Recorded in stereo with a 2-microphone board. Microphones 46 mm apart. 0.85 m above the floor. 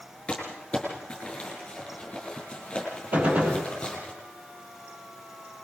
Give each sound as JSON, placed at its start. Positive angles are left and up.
{"t": 0.3, "sound": "crumpling", "side_deg": 25, "distance_m": 7.5}
{"t": 3.1, "sound": "a gunshot", "side_deg": -35, "distance_m": 4.0}